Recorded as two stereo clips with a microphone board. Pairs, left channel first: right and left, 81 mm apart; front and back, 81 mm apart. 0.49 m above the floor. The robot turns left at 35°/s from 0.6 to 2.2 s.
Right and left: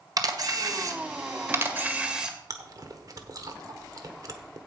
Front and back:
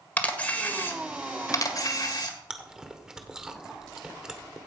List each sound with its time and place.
0.2 s a camera shutter: 70° left, 1.6 m; by 2.4 s 10° left, 1.6 m
2.5 s chewing: 100° left, 1.2 m